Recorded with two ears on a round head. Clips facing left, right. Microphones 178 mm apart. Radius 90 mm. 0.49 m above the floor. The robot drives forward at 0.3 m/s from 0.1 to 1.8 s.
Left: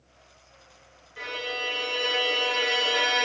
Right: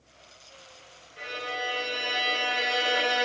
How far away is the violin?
About 3.5 m.